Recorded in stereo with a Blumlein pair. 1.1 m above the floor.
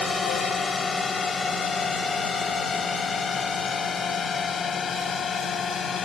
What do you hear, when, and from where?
0.0 s a drone: 15° left; by 6.1 s 20° left